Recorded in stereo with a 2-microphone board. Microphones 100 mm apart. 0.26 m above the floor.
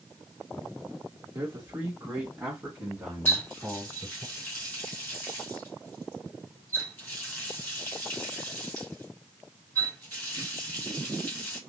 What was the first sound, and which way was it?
A man speaking, 25° right (ahead or behind).